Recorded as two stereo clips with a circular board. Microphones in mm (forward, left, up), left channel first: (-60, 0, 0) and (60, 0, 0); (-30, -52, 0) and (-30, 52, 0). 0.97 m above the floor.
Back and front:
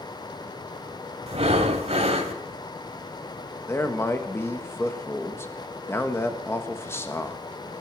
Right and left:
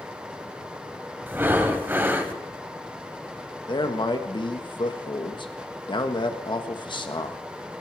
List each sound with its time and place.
1.3 s breathing: 20° left, 1.4 m
3.7 s a man speaking: 115° right, 1.5 m